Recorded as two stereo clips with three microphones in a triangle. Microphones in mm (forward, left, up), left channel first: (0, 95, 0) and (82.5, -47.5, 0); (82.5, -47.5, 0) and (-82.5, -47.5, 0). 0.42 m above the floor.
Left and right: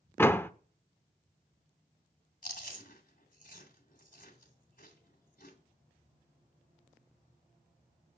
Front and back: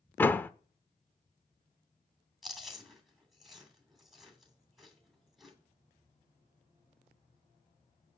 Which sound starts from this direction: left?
Chewing, at 2.4 s.